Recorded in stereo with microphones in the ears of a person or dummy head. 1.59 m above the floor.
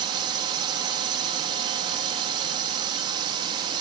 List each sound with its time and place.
0.0 s a drone: 25° right (ahead or behind)